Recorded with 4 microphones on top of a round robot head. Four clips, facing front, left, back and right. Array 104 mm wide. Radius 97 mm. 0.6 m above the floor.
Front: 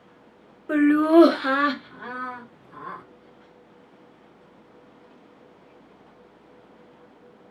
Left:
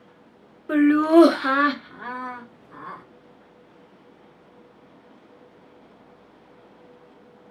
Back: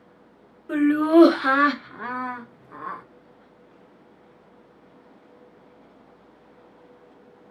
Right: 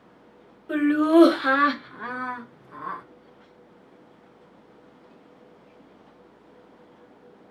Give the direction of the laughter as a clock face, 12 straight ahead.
11 o'clock.